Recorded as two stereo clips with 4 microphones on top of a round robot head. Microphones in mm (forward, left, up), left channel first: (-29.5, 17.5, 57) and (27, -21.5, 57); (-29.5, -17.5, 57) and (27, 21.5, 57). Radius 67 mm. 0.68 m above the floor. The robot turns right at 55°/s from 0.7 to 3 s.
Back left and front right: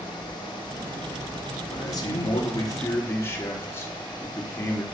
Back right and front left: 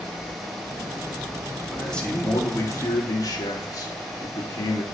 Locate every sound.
1.7 s a man speaking: 125° left, 1.5 m; by 4.8 s 165° right, 1.5 m